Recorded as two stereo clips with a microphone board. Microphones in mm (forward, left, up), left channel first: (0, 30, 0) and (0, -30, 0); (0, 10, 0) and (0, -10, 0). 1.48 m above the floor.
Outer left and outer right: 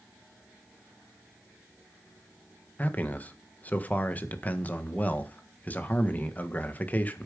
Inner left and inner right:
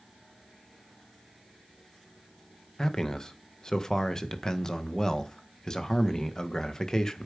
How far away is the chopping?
I don't hear chopping.